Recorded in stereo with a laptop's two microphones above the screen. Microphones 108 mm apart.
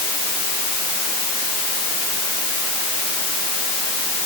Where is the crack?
No crack in this recording.